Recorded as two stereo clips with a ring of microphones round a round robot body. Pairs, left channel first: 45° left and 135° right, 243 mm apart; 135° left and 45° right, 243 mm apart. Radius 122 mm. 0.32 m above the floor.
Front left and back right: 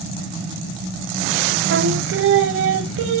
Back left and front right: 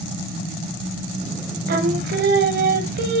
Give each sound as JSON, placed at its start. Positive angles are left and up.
{"t": 1.7, "sound": "singing", "azimuth_deg": -95, "distance_m": 0.8}